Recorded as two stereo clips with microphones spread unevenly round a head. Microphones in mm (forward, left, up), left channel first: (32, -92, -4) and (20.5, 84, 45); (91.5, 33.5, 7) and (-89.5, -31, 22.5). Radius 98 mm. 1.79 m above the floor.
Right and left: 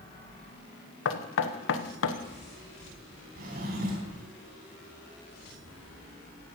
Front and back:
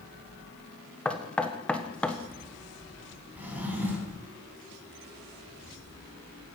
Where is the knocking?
65° right, 1.1 m.